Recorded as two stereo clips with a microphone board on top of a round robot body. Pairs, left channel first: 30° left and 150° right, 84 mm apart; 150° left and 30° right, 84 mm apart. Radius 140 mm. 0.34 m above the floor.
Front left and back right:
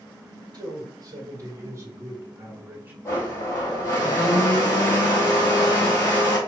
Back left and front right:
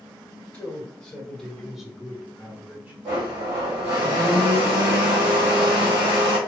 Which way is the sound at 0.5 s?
135° right.